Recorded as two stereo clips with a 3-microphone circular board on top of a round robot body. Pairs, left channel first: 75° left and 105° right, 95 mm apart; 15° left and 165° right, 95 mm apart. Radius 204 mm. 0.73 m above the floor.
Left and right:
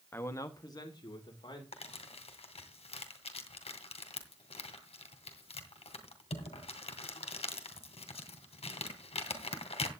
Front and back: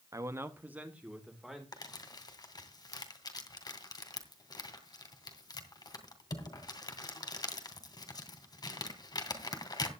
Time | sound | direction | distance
0.1 | a man speaking | 140° left | 1.3 m
1.7 | crumpling | 65° left | 2.5 m